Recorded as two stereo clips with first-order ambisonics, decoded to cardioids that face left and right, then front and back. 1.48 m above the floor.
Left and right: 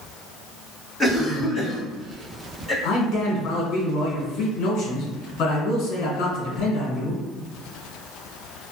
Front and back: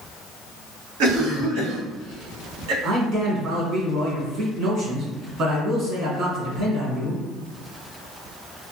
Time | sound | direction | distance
1.0 | a cough | 175° right | 1.4 m
2.8 | a man speaking | 125° left | 1.3 m